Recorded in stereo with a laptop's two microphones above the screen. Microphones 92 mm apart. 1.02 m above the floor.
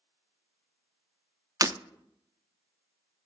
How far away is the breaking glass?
About 0.5 m.